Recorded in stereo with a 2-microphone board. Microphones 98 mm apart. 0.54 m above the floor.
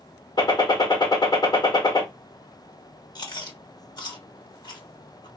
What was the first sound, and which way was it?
A gunshot, 45° left (ahead or behind).